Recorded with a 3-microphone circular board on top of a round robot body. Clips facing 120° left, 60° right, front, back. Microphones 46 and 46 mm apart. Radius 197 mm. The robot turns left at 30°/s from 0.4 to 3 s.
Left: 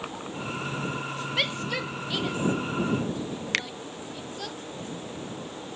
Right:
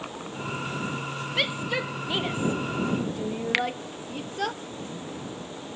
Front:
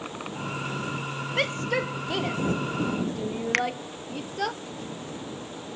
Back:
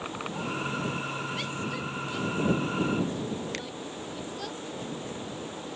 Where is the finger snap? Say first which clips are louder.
Right 4 dB, front 12 dB; 20° left.